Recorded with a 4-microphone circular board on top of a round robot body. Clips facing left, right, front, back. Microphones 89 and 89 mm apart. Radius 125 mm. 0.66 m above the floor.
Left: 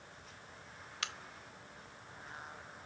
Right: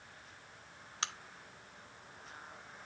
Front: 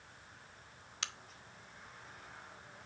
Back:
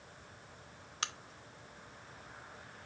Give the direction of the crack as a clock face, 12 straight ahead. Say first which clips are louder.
Right 3 dB, back 5 dB; 5 o'clock.